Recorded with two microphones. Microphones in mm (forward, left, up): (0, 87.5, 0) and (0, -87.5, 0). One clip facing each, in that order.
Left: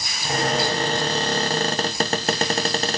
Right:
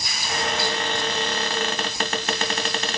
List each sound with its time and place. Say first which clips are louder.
0.2 s a cupboard door: left 4 dB; 35° left (ahead or behind), 0.5 m